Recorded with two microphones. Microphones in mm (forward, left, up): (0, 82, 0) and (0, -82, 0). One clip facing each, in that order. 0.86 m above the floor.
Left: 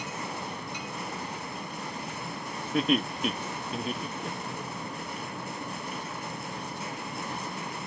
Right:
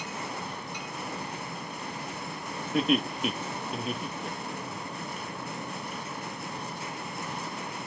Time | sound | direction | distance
2.7 | laughter | centre (ahead or behind) | 1.2 m